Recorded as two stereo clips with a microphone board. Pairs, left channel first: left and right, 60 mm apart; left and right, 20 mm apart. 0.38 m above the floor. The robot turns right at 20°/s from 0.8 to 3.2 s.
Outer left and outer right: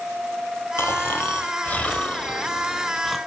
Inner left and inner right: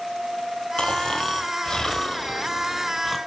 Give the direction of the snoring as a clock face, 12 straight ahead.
8 o'clock.